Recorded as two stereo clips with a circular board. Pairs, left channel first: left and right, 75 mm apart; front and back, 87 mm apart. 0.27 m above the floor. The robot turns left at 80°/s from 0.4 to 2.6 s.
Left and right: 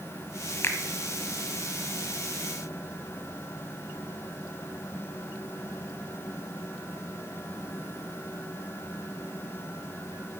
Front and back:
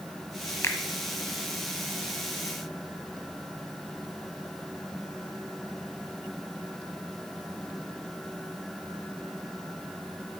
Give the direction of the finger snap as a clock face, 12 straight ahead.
10 o'clock.